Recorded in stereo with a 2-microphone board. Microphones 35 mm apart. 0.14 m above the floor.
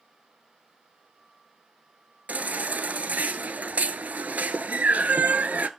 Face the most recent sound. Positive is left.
turn(degrees=-55)  # may be behind; listen again after turning